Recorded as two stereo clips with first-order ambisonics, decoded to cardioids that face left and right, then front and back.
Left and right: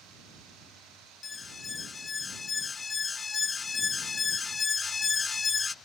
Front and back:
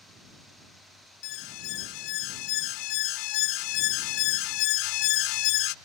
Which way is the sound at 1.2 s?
15° left.